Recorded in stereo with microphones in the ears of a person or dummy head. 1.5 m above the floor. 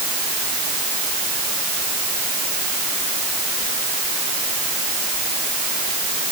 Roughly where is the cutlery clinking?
I don't hear cutlery clinking.